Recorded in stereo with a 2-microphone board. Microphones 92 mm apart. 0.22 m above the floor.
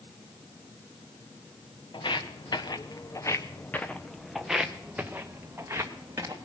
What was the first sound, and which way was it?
Footsteps, 70° left (ahead or behind).